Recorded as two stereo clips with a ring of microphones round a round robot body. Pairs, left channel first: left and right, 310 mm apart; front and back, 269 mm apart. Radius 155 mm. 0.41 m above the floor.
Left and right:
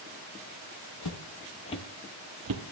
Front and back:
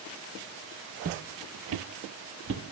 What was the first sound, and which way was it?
Footsteps, 120° left.